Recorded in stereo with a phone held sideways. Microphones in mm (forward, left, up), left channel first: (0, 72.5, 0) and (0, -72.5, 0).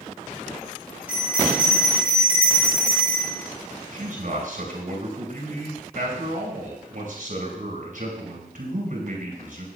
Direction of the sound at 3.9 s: 70° right (ahead or behind).